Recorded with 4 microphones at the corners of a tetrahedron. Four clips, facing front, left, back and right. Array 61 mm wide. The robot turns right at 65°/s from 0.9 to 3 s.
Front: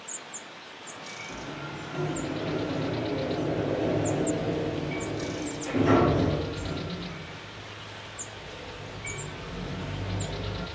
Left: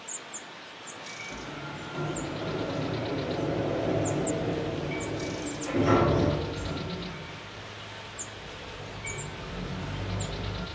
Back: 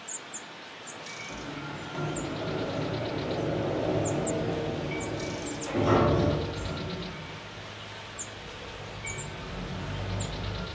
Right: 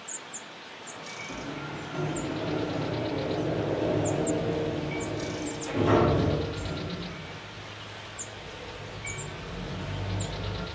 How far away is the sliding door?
About 1.2 m.